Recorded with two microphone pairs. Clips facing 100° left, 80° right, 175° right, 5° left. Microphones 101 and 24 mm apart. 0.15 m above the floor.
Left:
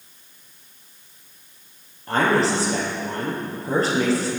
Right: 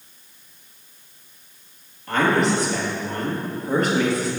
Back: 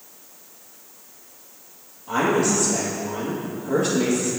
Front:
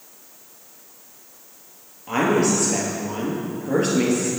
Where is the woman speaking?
45° left, 2.5 m.